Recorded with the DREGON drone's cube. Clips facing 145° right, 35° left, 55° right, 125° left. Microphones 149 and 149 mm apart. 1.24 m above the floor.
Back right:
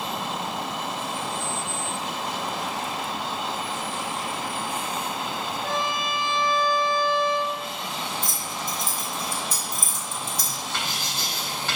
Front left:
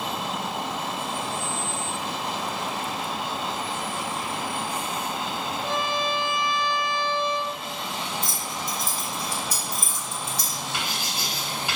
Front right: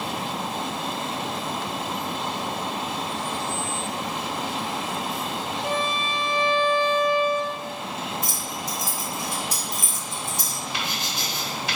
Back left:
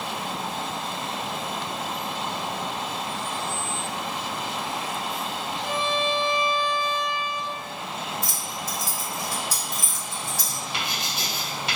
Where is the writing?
105° left, 1.7 m.